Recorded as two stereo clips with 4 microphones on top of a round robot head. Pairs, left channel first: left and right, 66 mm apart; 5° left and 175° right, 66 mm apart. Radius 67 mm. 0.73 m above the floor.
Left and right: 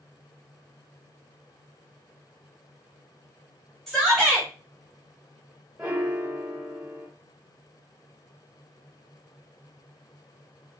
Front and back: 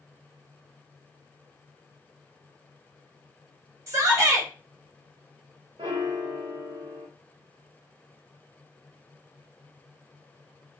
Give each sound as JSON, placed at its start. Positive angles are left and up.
{"t": 3.9, "sound": "a shout", "azimuth_deg": 180, "distance_m": 1.2}
{"t": 5.8, "sound": "a piano", "azimuth_deg": -170, "distance_m": 0.6}